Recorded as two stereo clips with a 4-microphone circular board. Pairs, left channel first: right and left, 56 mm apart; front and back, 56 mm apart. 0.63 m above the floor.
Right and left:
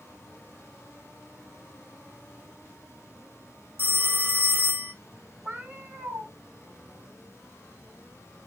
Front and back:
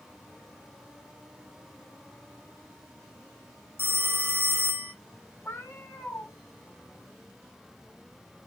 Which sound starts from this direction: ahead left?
A cat meowing, at 5.5 s.